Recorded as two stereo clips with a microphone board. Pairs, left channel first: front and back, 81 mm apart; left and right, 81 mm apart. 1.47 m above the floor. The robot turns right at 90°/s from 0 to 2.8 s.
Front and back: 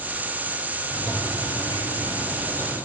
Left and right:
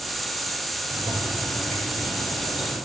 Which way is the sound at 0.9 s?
65° right.